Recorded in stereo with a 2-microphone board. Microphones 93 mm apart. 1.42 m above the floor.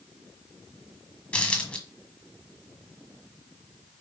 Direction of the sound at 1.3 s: 15° left (ahead or behind).